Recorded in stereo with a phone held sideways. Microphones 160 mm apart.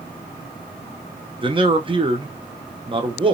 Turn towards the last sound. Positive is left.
turn(degrees=-30)  # may be behind; listen again after turning